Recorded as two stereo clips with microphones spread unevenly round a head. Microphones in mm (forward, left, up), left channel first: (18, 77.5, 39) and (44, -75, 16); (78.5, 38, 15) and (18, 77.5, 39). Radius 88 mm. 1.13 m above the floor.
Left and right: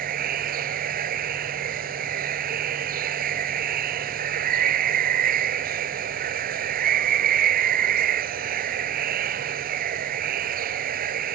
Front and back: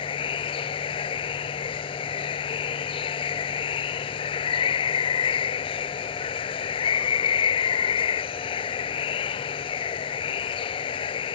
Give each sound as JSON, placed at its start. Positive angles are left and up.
{"t": 0.0, "sound": "running water", "azimuth_deg": -50}